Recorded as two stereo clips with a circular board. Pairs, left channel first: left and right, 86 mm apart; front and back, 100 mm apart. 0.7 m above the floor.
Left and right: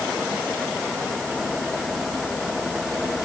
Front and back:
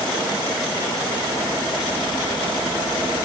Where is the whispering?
No whispering in this recording.